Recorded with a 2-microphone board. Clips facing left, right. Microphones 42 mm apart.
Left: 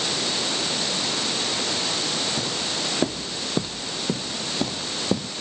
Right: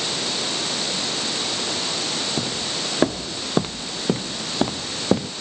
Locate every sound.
2.4 s footsteps: 35° right (ahead or behind); by 5.3 s 45° right (ahead or behind)